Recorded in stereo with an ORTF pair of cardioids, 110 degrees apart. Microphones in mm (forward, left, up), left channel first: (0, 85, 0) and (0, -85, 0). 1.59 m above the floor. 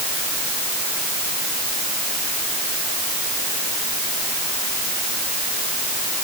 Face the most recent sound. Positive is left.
No sound to turn to.